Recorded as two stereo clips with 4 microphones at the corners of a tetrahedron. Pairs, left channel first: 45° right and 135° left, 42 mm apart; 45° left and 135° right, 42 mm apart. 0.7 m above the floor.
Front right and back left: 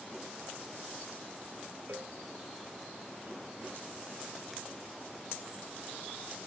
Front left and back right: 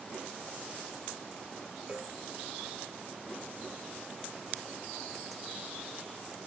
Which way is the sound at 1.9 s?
160° left.